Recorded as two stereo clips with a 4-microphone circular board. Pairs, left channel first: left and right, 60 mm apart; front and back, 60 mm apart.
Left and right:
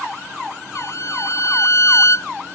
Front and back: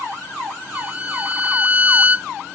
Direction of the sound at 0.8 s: 115° left.